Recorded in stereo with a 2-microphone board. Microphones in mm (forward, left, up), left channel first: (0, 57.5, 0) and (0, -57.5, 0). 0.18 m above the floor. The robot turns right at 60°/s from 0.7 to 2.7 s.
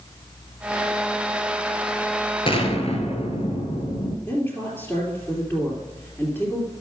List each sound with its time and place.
2.5 s an explosion: 50° left (ahead or behind), 2 m; by 4.2 s 60° left (ahead or behind), 2 m
4.3 s a woman speaking: 15° left (ahead or behind), 3 m